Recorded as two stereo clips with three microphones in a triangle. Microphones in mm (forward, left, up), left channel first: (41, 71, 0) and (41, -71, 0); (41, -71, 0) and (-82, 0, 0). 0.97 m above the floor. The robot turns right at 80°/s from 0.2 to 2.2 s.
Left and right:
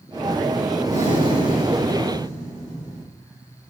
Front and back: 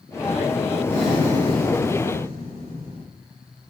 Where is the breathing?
50° left, 2.5 m; by 3.0 s 155° left, 2.5 m.